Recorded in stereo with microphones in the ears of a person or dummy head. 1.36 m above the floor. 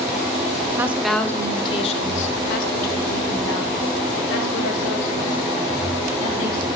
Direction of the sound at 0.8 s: 15° right (ahead or behind).